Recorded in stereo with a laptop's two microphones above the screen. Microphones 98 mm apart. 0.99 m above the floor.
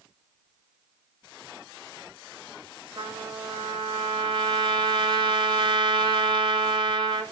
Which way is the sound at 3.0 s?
50° right (ahead or behind).